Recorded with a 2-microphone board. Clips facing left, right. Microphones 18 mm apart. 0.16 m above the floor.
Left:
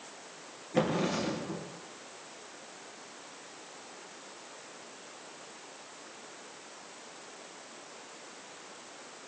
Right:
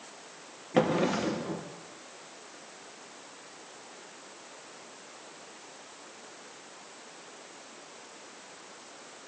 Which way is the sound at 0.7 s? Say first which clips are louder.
Right 3 dB; 70° right (ahead or behind).